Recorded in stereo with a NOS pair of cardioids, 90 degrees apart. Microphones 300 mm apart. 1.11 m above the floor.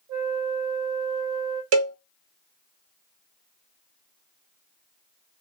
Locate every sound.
0.1 s a flute: 55° right, 2.5 m
1.7 s a cowbell: 60° right, 0.7 m